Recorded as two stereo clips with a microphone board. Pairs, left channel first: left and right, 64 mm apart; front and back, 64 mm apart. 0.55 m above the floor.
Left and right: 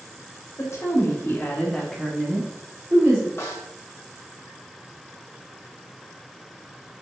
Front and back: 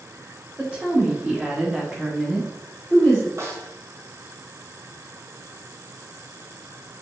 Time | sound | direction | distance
0.6 | a woman speaking | 110° left | 1.7 m
3.4 | a snare drum | 140° left | 1.4 m